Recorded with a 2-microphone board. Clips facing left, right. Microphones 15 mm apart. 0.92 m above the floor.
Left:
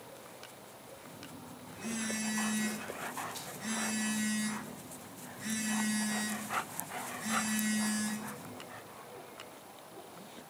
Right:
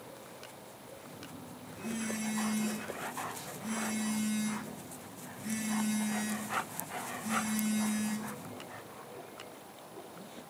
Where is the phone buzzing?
75° left (ahead or behind), 3.5 m.